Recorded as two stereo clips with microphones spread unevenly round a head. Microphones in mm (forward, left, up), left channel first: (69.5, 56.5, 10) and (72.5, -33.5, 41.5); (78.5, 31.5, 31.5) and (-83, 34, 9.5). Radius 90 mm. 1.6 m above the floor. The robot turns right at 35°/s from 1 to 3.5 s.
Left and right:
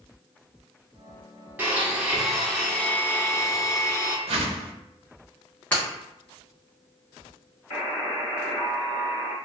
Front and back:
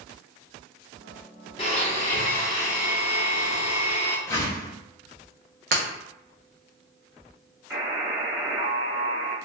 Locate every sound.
1.6 s a blender: 45° right, 0.8 m; by 4.2 s 20° left, 0.8 m
4.3 s a whoosh: 75° right, 0.5 m
5.7 s breaking glass: 170° right, 0.9 m
7.7 s a buzzer: 105° left, 1.2 m